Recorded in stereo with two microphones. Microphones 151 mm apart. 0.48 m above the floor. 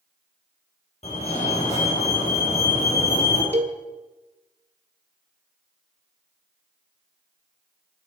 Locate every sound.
1.0 s a fire alarm: 45° left (ahead or behind), 5 m
3.5 s a cowbell: 45° right (ahead or behind), 1.7 m